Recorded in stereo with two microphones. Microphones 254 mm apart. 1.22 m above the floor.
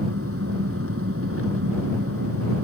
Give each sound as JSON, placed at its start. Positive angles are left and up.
{"t": 0.0, "sound": "an engine running", "side_deg": -55}